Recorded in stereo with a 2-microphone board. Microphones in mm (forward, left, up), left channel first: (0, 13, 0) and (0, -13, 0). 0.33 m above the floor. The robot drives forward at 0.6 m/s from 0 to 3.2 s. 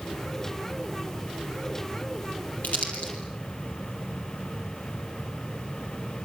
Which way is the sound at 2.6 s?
65° left (ahead or behind).